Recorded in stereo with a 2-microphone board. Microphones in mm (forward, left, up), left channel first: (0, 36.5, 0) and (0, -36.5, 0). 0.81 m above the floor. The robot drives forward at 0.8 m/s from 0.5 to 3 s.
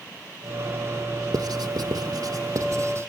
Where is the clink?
I don't hear a clink.